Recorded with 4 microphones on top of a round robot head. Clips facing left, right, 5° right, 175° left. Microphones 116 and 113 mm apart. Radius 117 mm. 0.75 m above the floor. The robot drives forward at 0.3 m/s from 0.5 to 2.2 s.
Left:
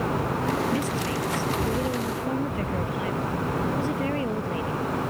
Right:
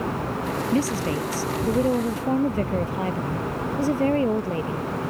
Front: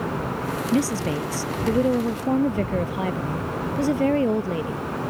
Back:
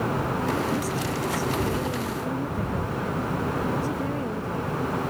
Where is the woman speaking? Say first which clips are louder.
Right 3 dB, front 5 dB; 30° right.